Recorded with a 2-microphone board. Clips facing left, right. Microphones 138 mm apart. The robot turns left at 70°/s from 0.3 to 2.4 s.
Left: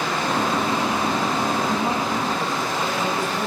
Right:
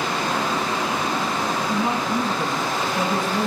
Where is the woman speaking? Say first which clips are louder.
Even; 10° right, 2.5 m; by 3.5 s 60° right, 2.5 m.